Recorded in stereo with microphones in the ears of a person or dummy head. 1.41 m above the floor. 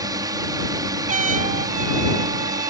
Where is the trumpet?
40° right (ahead or behind).